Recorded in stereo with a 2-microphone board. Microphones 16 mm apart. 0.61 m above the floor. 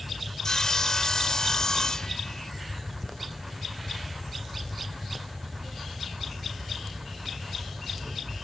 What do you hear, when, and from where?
0.4 s sawing: 40° left (ahead or behind), 1.2 m